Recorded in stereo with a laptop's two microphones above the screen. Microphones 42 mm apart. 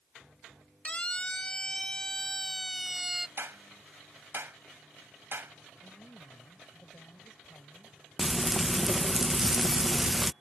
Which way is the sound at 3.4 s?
60° right (ahead or behind).